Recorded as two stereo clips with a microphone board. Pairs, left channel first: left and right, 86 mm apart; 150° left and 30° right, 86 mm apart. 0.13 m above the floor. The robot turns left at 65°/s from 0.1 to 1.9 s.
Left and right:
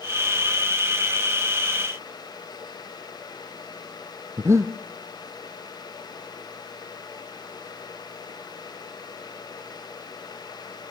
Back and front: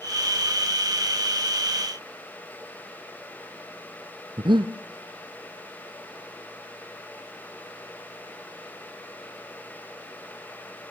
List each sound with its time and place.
4.4 s breathing: 40° right, 1.6 m